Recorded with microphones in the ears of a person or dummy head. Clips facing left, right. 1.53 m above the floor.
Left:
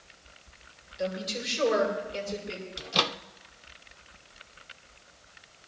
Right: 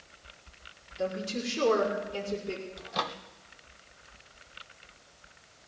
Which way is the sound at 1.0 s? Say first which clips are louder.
Even; 65° right (ahead or behind).